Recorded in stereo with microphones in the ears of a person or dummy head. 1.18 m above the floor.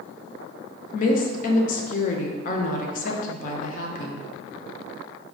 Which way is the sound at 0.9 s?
40° left (ahead or behind).